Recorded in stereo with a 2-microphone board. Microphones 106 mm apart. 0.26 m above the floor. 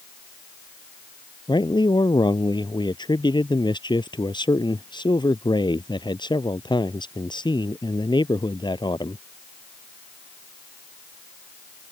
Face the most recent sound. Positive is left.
turn(degrees=50)  # may be behind; listen again after turning